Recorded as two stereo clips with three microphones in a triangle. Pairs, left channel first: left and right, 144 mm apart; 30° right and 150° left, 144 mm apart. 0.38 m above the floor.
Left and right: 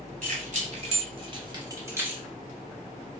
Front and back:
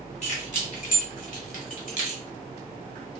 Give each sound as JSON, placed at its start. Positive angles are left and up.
{"t": 0.2, "sound": "keys jangling", "azimuth_deg": -65, "distance_m": 1.5}